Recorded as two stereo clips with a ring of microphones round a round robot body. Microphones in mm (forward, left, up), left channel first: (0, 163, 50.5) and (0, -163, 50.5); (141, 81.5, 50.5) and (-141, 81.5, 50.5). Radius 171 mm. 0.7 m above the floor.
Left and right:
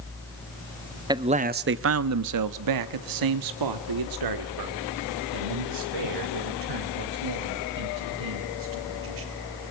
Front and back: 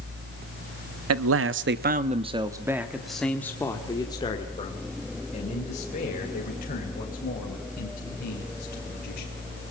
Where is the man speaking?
165° right, 0.9 m; by 9.3 s 65° right, 5 m.